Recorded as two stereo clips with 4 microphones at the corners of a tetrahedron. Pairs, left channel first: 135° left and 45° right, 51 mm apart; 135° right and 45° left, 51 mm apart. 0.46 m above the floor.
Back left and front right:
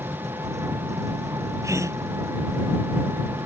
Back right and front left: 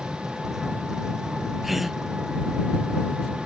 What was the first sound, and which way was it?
An engine running, 35° right.